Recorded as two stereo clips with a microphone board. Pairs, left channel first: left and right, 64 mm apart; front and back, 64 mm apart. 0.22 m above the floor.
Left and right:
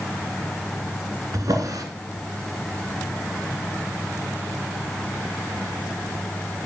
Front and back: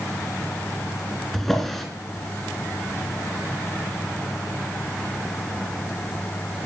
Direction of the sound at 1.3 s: 85° right.